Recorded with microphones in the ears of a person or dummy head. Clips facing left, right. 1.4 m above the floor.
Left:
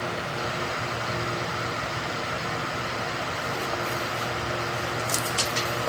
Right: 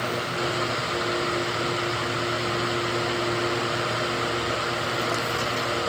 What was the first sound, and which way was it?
Only background noise.